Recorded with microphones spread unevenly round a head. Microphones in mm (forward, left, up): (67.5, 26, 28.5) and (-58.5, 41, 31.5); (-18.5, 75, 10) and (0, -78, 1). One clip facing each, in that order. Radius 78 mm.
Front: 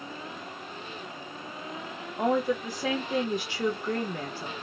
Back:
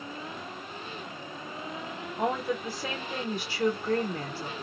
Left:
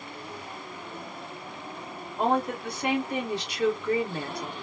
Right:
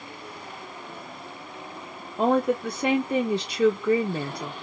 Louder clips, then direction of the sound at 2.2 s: Front 4 dB, right 4 dB; 90° right.